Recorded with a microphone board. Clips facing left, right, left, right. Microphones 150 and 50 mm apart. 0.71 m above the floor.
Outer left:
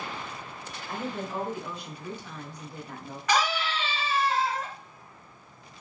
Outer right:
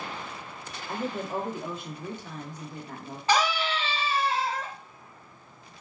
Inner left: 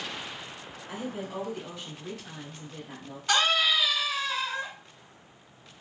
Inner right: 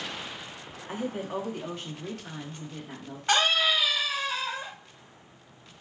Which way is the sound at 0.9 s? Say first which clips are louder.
Outer right 2 dB, inner right 3 dB; 40° right (ahead or behind).